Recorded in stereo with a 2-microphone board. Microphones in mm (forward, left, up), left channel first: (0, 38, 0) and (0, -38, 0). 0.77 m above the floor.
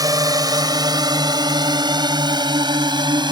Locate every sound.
0.0 s a drone: 55° right (ahead or behind); by 3.3 s 75° right (ahead or behind)